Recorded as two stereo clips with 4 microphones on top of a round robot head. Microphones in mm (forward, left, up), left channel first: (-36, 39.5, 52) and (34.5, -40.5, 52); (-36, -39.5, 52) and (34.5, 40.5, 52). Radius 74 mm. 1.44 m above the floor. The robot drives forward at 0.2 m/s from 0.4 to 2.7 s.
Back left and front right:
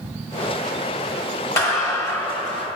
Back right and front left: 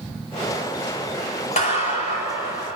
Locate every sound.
1.6 s a clap: 165° right, 2 m